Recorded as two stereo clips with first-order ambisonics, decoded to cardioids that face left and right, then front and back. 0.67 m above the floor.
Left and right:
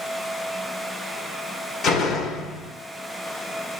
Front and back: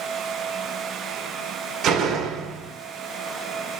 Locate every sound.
1.8 s a door slam: 135° left, 0.9 m